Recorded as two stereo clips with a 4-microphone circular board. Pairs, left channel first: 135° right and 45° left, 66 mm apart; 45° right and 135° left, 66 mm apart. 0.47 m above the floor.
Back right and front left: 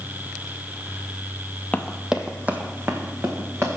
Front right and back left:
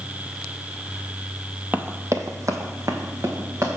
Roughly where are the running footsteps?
Behind.